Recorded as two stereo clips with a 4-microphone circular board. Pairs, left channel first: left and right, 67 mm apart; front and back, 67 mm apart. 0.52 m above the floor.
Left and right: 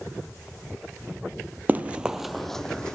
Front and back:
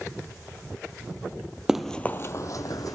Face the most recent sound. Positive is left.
turn(degrees=15)